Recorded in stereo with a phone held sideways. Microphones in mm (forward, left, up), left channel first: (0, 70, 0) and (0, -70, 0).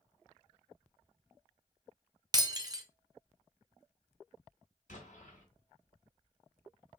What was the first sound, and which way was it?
Breaking glass, 30° right (ahead or behind).